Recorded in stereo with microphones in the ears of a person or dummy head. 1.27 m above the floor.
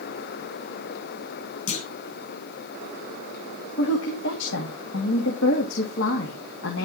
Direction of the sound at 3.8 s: 75° left (ahead or behind).